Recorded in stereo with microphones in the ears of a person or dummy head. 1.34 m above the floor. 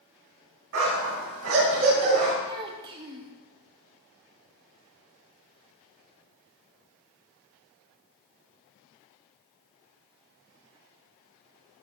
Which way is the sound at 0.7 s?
65° right (ahead or behind).